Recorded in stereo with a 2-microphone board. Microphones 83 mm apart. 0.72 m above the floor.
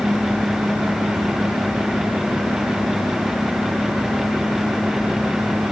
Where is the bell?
No bell in this recording.